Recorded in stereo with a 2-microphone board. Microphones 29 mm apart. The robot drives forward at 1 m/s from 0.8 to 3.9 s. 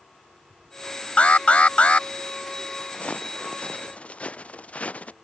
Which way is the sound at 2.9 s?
50° left (ahead or behind).